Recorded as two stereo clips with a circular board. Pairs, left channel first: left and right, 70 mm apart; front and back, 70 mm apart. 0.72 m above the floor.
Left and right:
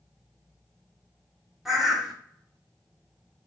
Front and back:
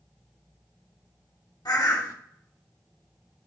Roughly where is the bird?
Ahead.